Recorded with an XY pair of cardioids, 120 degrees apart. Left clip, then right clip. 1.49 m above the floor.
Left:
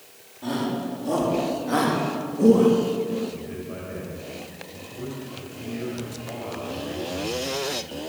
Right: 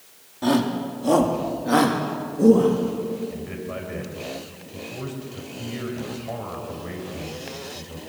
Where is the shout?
55° right, 4 m; by 2.8 s straight ahead, 3.5 m.